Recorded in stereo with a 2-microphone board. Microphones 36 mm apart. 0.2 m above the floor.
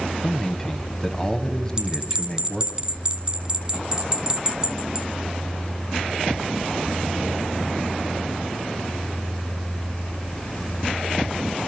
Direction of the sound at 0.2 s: 10° left (ahead or behind).